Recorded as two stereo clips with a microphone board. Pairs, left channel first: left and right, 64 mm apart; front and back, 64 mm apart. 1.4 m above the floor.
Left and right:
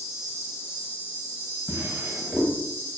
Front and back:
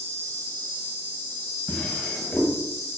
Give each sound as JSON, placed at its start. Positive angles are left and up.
{"t": 0.0, "sound": "an insect", "azimuth_deg": 50, "distance_m": 1.1}
{"t": 1.7, "sound": "a drawer", "azimuth_deg": -60, "distance_m": 0.8}